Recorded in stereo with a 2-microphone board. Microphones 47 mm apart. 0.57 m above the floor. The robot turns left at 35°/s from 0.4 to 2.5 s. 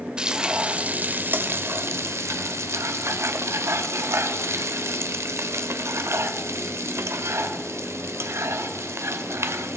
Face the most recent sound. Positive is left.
turn(degrees=-90)